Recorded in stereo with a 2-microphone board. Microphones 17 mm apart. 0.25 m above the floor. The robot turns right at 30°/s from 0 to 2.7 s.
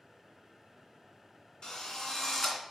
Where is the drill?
50° left (ahead or behind), 2.5 m; by 2.6 s 25° left (ahead or behind), 2.5 m.